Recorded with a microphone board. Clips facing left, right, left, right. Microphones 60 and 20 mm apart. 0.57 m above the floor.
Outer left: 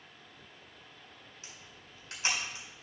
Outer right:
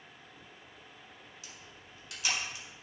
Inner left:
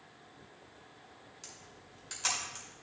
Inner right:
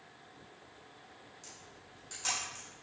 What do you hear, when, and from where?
1.4 s a camera shutter: 35° left (ahead or behind), 4.5 m